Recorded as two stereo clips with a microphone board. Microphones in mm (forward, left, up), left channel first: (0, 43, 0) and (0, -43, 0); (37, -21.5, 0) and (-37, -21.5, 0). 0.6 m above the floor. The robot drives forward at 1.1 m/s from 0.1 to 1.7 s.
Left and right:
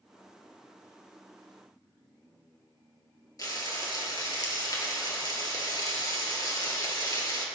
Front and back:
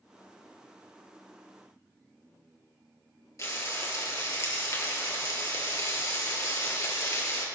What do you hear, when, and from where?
3.4 s frying: 45° left, 2.5 m